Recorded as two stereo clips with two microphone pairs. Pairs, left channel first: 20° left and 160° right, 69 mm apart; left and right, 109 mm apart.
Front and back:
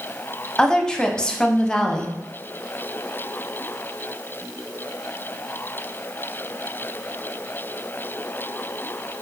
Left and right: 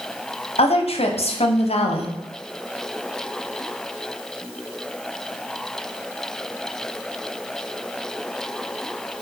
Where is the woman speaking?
100° left, 0.6 m.